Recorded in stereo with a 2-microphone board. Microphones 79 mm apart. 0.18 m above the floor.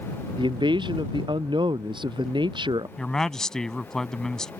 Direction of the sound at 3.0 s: 10° left (ahead or behind).